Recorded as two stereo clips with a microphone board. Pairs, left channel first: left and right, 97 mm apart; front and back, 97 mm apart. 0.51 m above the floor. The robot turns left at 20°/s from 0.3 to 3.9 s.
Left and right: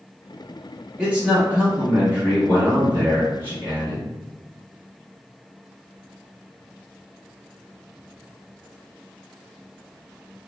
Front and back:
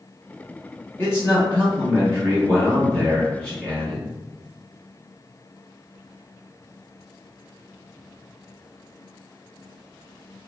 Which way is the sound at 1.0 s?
20° right.